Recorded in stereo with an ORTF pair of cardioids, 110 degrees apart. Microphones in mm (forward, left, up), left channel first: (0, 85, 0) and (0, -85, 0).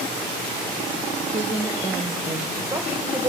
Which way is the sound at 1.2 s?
10° right.